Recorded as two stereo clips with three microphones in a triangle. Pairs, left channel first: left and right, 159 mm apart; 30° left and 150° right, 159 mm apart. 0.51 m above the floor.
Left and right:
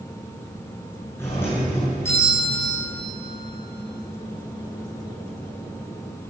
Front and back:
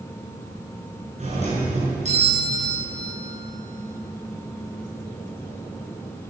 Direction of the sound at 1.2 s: 165° left.